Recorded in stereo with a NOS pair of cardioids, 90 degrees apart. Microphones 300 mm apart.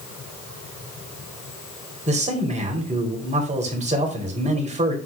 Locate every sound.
2.1 s a man speaking: 25° right, 4 m